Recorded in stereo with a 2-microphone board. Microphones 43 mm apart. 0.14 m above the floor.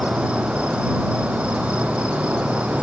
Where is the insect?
25° right (ahead or behind).